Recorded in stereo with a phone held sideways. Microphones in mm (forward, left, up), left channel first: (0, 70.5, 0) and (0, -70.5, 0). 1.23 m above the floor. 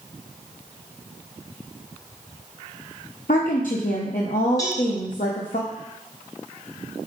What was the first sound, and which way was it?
A woman speaking, 70° left (ahead or behind).